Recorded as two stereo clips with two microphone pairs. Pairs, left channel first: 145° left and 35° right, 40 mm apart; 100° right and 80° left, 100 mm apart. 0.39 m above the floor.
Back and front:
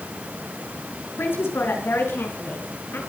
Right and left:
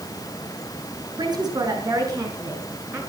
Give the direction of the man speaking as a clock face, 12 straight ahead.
8 o'clock.